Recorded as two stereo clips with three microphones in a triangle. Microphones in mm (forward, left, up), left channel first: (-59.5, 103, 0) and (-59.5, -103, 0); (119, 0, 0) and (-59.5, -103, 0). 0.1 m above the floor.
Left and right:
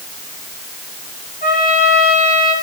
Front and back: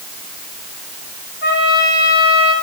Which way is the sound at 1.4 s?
50° left.